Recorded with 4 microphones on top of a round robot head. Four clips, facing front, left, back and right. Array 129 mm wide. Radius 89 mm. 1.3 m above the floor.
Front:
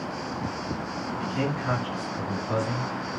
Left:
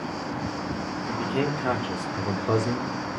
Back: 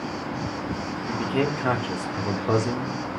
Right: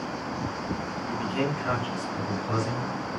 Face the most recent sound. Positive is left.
turn(degrees=140)